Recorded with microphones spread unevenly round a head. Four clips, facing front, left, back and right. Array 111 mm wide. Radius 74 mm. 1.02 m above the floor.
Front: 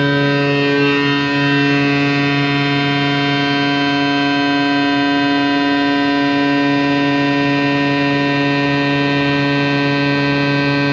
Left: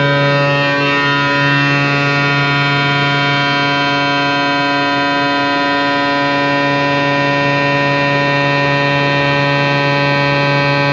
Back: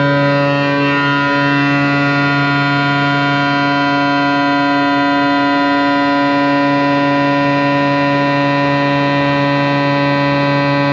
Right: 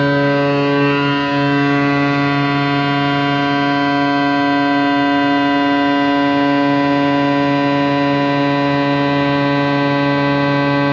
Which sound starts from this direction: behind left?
A machine running, at 0.0 s.